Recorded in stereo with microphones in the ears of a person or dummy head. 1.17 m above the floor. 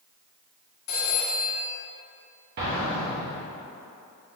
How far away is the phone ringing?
About 1.6 m.